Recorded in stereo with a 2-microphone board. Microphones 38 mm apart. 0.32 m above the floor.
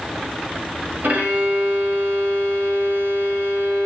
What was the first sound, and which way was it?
A violin, 50° right (ahead or behind).